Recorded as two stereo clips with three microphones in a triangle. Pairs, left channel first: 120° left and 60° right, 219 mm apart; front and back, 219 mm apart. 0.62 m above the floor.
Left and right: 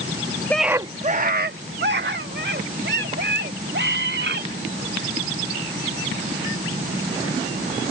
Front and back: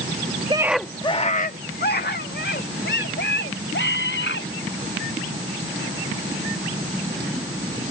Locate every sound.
0.5 s a scream: 170° right; by 4.5 s 30° right